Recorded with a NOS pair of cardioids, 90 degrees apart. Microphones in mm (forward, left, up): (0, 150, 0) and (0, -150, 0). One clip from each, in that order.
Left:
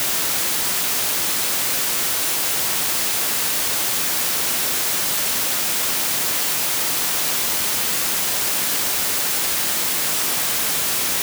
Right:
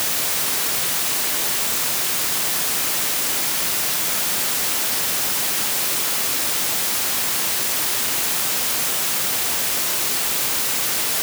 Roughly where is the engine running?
I don't hear an engine running.